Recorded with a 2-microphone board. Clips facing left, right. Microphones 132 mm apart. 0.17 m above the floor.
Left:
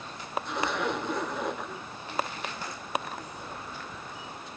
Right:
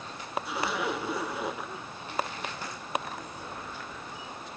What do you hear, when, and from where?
0.5 s a zipper: 5° right (ahead or behind), 2 m